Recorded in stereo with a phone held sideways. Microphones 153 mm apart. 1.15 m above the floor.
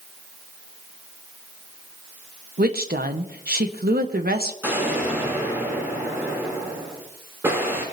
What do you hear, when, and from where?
2.6 s a woman speaking: 80° right, 1.3 m
4.6 s an explosion: 15° right (ahead or behind), 7.5 m